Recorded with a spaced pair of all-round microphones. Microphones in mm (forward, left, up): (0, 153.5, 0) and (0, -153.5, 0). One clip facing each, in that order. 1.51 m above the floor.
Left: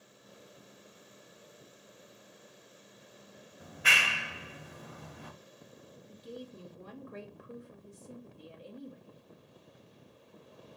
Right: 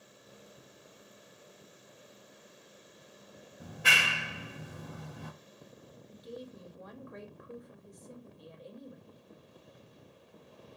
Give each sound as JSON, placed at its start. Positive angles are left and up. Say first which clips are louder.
{"t": 3.6, "sound": "a clap", "louder": "right 2 dB", "side_deg": -50, "distance_m": 0.8}
{"t": 6.1, "sound": "a woman speaking", "louder": "even", "side_deg": 35, "distance_m": 1.1}